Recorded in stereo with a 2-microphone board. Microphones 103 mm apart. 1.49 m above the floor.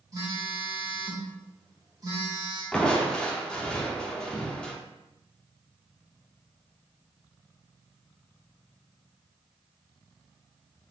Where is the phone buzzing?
35° right (ahead or behind), 1.0 m.